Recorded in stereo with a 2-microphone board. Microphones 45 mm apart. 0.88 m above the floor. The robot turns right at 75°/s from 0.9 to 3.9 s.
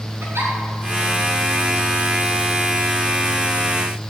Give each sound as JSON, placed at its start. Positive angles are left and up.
{"t": 0.2, "sound": "a giggle", "side_deg": -75, "distance_m": 3.5}